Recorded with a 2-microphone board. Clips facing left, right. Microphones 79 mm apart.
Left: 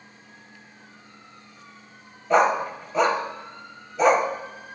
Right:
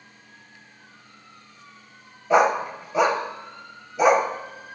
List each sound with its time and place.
2.3 s a dog barking: 10° right (ahead or behind), 0.7 m